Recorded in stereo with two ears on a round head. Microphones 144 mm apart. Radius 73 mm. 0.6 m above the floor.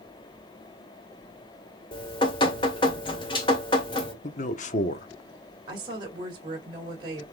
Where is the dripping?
30° left (ahead or behind), 2.5 m.